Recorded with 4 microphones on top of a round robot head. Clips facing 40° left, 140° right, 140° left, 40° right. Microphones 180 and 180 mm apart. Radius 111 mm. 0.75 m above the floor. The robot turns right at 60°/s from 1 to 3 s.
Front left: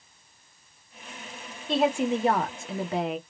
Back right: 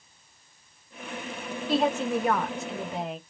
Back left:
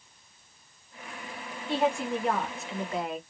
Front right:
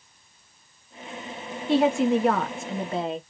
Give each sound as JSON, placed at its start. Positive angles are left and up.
{"t": 1.7, "sound": "a woman speaking", "azimuth_deg": -55, "distance_m": 1.4}